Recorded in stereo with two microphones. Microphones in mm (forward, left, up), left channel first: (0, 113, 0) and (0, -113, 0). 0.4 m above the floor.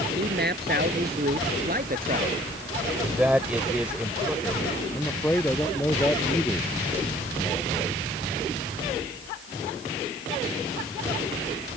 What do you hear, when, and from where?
0.1 s a man speaking: 45° right (ahead or behind); by 2.5 s 40° right (ahead or behind)
3.0 s a man speaking: 5° right (ahead or behind)
4.9 s a man speaking: 10° left (ahead or behind)